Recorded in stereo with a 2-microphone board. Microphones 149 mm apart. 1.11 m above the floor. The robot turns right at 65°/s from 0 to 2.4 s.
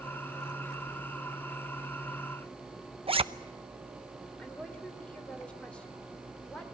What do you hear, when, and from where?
3.1 s a zipper: 40° right (ahead or behind), 0.7 m
4.4 s a woman speaking: 10° left (ahead or behind), 3.5 m